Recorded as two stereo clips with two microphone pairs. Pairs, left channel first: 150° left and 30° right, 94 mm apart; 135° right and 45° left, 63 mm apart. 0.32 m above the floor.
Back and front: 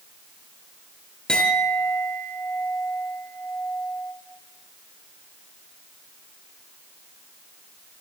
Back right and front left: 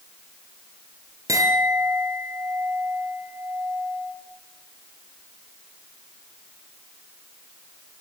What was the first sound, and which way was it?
A clink, 70° left.